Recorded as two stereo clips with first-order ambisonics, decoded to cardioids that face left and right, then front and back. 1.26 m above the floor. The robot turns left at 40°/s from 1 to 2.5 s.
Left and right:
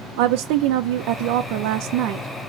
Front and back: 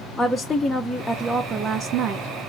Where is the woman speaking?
85° right, 0.5 m; by 2.3 s 135° right, 0.5 m.